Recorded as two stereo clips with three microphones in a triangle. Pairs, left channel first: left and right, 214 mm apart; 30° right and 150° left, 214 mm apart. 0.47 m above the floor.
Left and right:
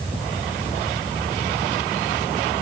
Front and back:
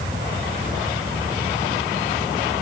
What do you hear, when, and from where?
Only background noise.